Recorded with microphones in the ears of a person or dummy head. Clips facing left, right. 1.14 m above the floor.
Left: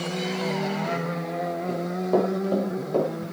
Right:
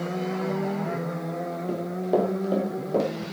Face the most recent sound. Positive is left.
turn(degrees=-15)  # may be behind; listen again after turning